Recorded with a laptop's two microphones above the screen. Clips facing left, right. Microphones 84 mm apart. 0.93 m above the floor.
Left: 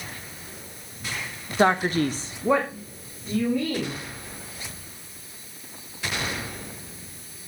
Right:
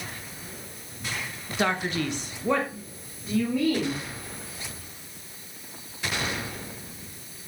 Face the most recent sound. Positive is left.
turn(degrees=-5)  # may be behind; listen again after turning